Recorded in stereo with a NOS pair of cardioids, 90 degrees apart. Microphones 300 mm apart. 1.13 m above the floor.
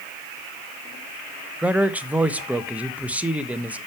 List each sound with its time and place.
1.6 s a man speaking: 5° right, 1.1 m